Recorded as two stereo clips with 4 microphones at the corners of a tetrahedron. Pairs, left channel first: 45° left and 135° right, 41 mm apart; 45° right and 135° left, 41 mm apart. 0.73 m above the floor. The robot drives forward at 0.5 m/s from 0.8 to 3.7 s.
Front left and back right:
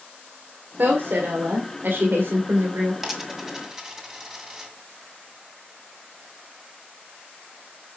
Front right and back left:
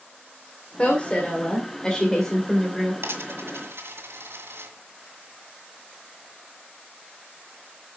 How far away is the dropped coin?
About 1.7 m.